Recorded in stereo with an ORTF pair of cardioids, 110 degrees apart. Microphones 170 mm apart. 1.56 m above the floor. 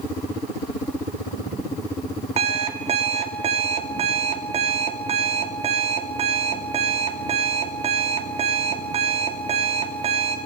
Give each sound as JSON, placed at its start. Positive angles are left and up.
{"t": 2.4, "sound": "an alarm clock", "azimuth_deg": -40, "distance_m": 2.5}